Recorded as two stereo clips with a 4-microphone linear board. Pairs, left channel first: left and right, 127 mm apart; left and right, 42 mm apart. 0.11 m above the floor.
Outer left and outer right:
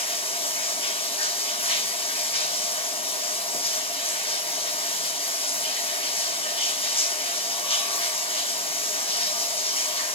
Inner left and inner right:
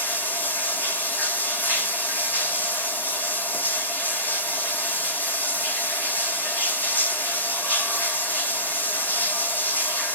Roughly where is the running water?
Left.